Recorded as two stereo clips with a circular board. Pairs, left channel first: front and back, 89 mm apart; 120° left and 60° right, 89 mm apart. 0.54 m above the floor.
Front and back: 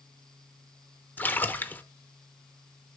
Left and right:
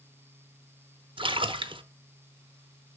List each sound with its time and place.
1.2 s a splash: 70° right, 0.6 m